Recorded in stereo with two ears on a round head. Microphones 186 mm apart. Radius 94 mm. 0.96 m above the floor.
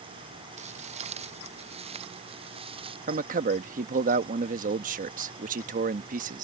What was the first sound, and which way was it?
Footsteps, 35° right (ahead or behind).